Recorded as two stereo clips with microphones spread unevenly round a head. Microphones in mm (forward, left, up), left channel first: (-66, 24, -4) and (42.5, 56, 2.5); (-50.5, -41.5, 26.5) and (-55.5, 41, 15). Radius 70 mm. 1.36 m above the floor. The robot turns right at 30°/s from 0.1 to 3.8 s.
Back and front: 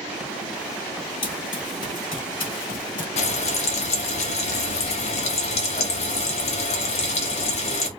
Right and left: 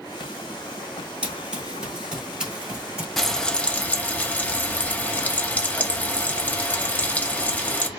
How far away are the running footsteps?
About 1.8 m.